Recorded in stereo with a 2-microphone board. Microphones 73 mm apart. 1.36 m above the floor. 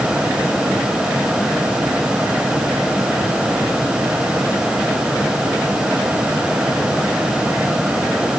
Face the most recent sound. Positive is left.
No sound to turn to.